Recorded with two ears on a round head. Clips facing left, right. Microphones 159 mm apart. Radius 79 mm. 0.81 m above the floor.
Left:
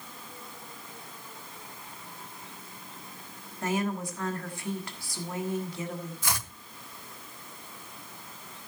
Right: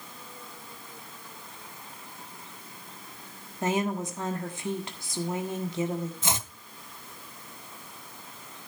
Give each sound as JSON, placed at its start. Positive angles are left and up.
{"t": 3.6, "sound": "a woman speaking", "side_deg": -20, "distance_m": 1.3}
{"t": 6.2, "sound": "chopping", "side_deg": -20, "distance_m": 0.6}